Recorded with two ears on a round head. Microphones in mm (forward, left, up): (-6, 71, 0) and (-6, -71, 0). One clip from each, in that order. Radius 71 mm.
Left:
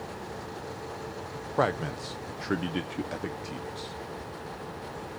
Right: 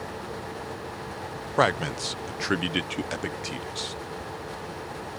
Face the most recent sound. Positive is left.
turn(degrees=-55)  # may be behind; listen again after turning